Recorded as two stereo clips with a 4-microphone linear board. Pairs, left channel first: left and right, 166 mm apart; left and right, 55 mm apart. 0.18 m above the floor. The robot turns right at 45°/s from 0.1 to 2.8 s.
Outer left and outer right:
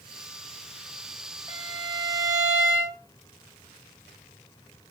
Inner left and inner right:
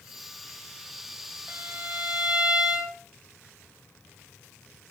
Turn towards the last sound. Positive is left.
turn(degrees=-10)  # may be behind; listen again after turning